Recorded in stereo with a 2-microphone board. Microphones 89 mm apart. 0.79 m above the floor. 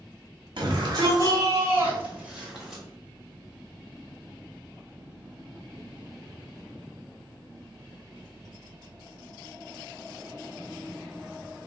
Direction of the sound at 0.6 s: 55° right (ahead or behind).